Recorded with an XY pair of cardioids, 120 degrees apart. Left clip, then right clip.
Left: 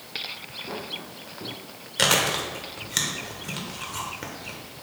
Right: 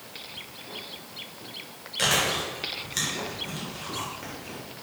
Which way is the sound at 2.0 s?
40° left.